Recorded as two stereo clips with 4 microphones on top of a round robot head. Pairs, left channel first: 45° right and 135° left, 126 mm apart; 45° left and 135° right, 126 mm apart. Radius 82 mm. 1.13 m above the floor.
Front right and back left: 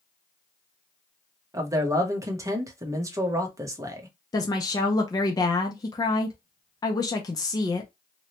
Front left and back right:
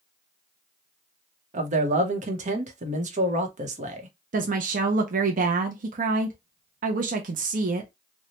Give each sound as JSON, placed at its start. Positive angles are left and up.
{"t": 1.5, "sound": "a man speaking", "azimuth_deg": -160, "distance_m": 0.9}
{"t": 4.3, "sound": "a woman speaking", "azimuth_deg": -110, "distance_m": 0.6}